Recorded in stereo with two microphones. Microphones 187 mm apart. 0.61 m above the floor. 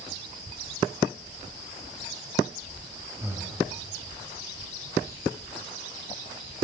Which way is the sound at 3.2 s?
15° right (ahead or behind).